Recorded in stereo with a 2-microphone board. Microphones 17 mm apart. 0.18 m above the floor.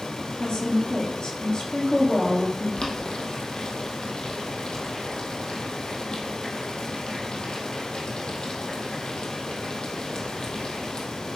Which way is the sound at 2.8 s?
65° left (ahead or behind).